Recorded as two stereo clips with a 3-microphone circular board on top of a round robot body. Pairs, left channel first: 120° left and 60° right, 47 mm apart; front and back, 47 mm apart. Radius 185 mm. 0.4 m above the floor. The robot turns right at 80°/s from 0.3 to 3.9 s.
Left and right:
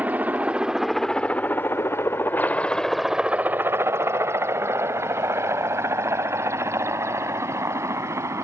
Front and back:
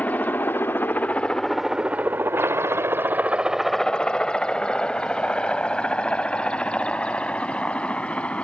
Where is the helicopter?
30° right; by 8.4 s 65° right.